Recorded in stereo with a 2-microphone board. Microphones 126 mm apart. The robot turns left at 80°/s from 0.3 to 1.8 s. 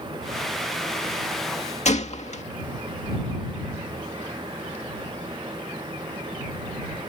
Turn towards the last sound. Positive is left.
turn(degrees=60)  # may be behind; listen again after turning